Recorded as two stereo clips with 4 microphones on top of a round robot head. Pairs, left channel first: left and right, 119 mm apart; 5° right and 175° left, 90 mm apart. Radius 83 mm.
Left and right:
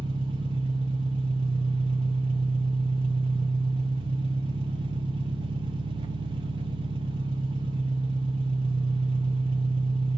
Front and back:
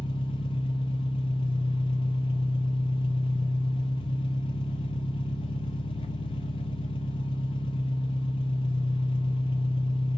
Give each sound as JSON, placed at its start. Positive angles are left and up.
{"t": 0.0, "sound": "an engine running", "azimuth_deg": -35, "distance_m": 0.8}